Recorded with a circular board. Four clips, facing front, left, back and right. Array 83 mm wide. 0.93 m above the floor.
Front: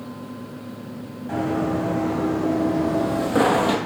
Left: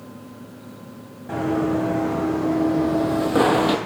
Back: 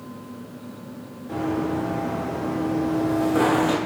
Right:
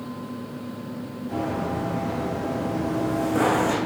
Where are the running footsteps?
55° left, 2.5 m; by 3.8 s 70° left, 1.1 m.